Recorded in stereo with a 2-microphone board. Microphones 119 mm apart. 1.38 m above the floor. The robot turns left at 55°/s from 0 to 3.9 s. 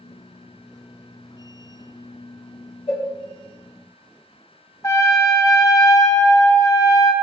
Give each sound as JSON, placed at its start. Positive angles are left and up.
{"t": 2.9, "sound": "a cowbell", "side_deg": 55, "distance_m": 1.3}
{"t": 4.8, "sound": "a trumpet", "side_deg": 30, "distance_m": 0.7}